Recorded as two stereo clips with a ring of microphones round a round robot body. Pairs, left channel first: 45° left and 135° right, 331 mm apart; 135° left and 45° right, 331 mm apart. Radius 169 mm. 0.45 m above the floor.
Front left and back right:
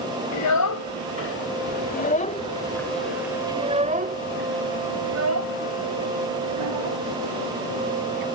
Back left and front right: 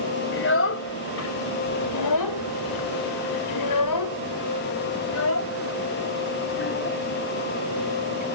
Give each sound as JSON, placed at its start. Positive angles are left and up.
{"t": 0.3, "sound": "a child speaking", "azimuth_deg": 80}